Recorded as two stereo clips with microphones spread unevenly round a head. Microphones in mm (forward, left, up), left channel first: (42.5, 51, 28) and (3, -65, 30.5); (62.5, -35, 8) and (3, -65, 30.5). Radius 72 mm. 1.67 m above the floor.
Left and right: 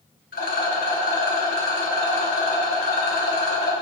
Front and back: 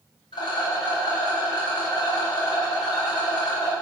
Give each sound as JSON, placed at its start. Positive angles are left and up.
{"t": 0.3, "sound": "a rattle", "azimuth_deg": 75, "distance_m": 5.0}